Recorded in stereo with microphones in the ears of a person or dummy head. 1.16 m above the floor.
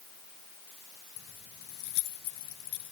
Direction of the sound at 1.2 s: 90° left.